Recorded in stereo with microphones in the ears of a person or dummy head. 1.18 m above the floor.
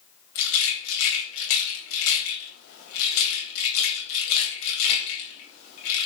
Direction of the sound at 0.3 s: 85° left.